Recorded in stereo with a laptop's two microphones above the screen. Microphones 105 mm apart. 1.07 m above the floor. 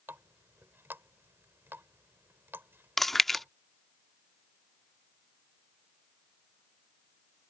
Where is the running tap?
20° right (ahead or behind).